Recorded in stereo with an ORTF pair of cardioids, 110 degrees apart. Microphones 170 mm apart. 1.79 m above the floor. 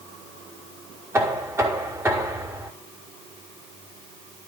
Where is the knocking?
15° right, 5 m.